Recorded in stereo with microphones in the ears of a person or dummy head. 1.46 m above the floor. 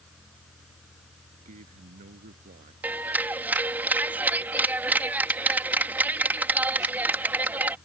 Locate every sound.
0.0 s a fan: centre (ahead or behind)
1.3 s a man speaking: 50° right (ahead or behind)
2.8 s a clap: 5° right (ahead or behind)